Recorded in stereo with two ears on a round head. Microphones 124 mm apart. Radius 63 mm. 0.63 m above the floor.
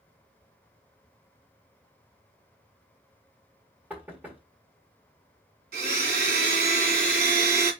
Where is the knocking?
10° right (ahead or behind), 1.4 m.